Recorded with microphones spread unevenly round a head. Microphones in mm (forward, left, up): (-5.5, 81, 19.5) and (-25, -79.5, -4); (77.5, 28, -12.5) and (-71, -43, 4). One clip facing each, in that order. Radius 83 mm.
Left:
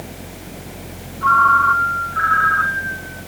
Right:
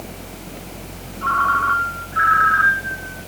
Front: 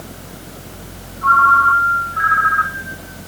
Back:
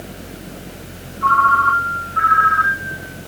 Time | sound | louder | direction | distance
1.2 | a ringtone | left 5 dB, front 1 dB | 160° right | 3 m